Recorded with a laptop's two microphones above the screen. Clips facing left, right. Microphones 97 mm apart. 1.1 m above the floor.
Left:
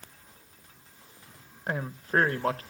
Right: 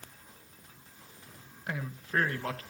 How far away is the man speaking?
About 1.2 m.